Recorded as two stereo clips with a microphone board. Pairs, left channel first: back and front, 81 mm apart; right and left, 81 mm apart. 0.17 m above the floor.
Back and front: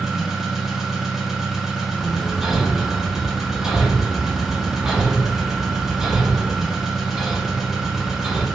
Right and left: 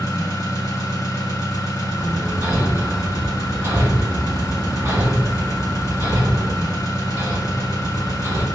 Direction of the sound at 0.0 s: 80° right.